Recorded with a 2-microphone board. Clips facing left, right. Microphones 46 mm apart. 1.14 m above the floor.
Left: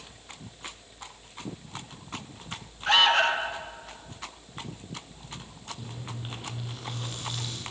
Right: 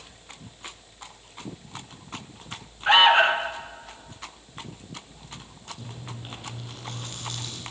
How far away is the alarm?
About 1.3 m.